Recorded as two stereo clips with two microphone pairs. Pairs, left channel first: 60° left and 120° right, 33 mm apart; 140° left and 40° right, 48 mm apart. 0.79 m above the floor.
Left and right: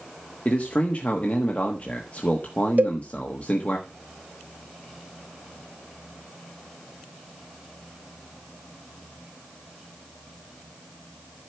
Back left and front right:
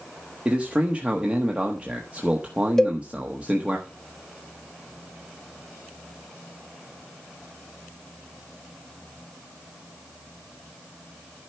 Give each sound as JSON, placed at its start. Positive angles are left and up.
{"t": 0.5, "sound": "a man speaking", "azimuth_deg": 20, "distance_m": 1.3}
{"t": 2.8, "sound": "a cowbell", "azimuth_deg": -145, "distance_m": 0.9}